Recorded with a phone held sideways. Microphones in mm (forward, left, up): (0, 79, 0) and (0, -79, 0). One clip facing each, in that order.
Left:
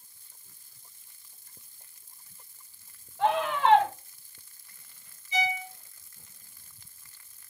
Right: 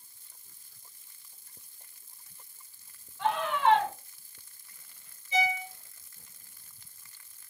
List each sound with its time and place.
3.2 s a scream: 70° left (ahead or behind), 2.5 m
5.3 s a violin: 30° right (ahead or behind), 1.9 m